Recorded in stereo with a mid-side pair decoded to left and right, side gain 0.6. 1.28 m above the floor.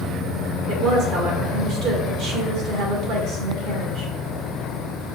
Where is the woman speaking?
65° right, 1.5 m.